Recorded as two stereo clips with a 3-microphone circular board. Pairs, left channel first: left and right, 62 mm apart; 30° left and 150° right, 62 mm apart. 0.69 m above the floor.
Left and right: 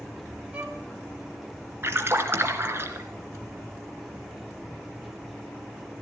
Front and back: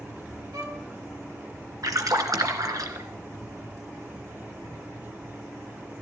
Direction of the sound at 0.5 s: 155° right.